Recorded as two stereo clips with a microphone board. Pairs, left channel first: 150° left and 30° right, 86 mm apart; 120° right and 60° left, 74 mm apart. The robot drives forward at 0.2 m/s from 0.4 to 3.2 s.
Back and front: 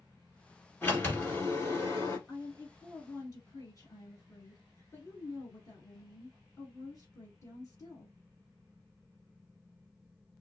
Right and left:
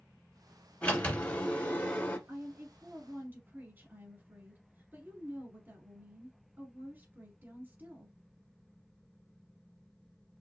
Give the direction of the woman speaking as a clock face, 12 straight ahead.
8 o'clock.